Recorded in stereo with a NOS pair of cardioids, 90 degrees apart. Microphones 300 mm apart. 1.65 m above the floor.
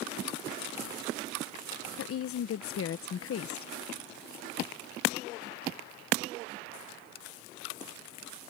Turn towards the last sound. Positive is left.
turn(degrees=50)